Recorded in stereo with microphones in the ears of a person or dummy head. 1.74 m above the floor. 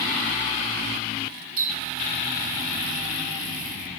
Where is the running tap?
45° right (ahead or behind), 6 m.